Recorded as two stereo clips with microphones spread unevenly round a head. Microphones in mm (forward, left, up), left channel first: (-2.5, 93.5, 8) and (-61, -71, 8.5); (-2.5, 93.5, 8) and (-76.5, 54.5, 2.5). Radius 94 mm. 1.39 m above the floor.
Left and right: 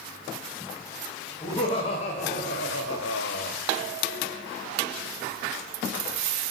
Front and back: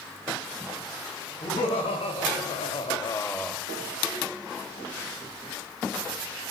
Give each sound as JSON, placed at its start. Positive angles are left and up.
{"t": 1.4, "sound": "laughter", "azimuth_deg": 0, "distance_m": 1.8}